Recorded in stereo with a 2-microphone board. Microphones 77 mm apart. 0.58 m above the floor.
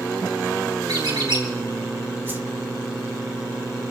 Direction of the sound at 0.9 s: 80° right.